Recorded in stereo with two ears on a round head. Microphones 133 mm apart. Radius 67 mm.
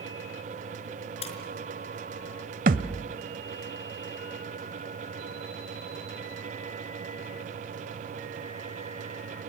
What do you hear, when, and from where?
1.2 s a splash: 45° left (ahead or behind), 5 m
2.7 s a thud: 60° right (ahead or behind), 1.1 m